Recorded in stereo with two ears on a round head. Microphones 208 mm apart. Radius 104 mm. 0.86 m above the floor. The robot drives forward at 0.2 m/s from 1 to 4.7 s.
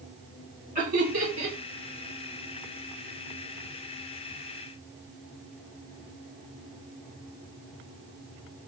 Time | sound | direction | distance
0.8 | laughter | 35° right (ahead or behind) | 2 m